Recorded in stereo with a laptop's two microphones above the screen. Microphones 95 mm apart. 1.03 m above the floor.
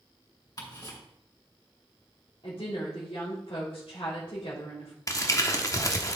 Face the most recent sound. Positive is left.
turn(degrees=35)  # may be behind; listen again after turning